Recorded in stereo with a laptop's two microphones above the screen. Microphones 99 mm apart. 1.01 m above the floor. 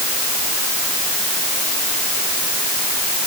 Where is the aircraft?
I don't hear an aircraft.